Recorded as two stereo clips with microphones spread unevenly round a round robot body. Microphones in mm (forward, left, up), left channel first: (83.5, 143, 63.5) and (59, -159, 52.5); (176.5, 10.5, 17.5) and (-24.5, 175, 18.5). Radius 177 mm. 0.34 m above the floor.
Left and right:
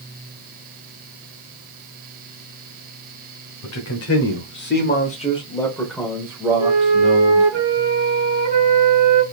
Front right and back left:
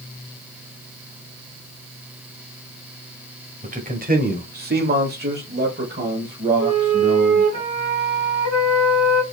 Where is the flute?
145° left, 3 m.